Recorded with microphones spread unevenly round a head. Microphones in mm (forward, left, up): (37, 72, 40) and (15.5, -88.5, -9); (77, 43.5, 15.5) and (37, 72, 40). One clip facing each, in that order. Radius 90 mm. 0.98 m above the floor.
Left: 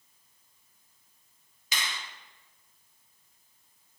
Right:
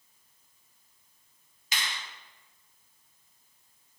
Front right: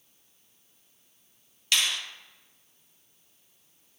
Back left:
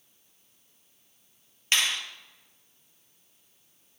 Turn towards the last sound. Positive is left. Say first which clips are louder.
# even, back left 1 dB
turn(degrees=90)